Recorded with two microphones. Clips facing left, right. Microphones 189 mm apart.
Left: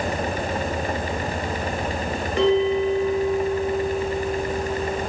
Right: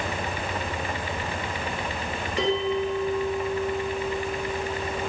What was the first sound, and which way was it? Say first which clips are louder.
A bell: left 6 dB; 55° left (ahead or behind).